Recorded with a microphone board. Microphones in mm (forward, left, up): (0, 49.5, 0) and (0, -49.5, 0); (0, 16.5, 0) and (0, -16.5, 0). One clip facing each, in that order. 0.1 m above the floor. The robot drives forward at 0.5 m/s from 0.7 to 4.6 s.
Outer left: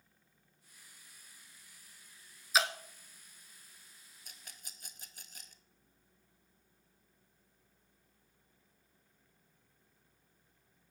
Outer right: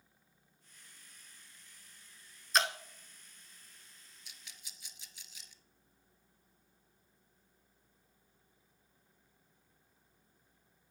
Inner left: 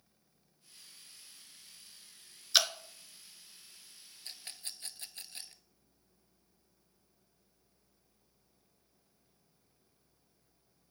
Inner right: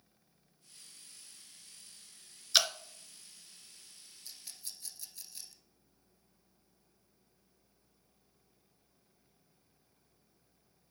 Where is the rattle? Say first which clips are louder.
Outer left 2 dB, inner left 4 dB; 45° left (ahead or behind), 0.7 m.